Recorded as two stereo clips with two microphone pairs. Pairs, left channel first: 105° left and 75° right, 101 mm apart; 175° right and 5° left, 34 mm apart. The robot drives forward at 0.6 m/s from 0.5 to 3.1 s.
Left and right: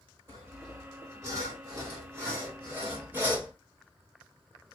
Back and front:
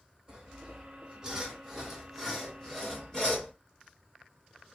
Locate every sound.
0.3 s sawing: 30° right, 1.7 m; by 3.5 s 130° right, 1.5 m